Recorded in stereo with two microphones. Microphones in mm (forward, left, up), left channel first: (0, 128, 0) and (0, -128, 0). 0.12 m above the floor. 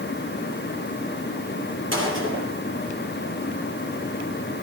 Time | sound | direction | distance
1.9 | a gunshot | 50° right (ahead or behind) | 3.5 m